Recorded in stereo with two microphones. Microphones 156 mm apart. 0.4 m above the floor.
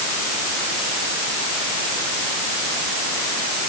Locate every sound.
Only background noise.